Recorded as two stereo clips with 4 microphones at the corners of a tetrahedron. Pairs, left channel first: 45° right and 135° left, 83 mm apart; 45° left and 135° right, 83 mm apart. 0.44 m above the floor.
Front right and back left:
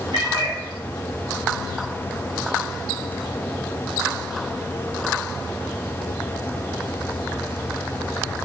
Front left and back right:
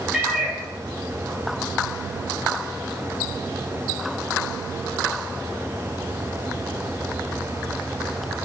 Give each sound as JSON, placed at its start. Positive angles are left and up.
{"t": 0.1, "sound": "a cat meowing", "azimuth_deg": 150, "distance_m": 1.3}